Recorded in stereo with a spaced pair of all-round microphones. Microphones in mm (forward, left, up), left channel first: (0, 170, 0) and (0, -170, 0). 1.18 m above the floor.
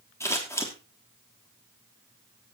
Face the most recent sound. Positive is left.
turn(degrees=10)  # may be behind; listen again after turning